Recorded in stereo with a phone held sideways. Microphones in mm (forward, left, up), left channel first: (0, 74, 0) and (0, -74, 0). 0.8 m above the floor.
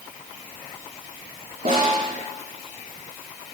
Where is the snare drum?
85° right, 9 m.